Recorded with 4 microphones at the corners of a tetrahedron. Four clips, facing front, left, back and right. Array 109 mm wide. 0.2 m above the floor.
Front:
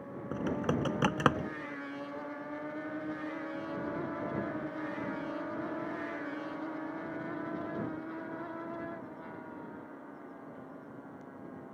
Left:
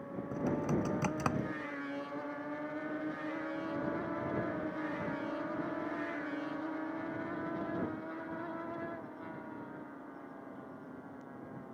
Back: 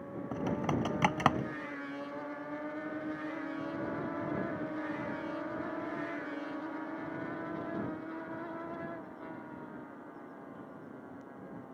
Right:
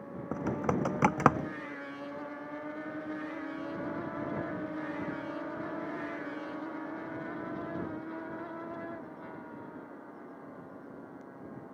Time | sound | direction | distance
0.3 | typing on a keyboard | 85° right | ?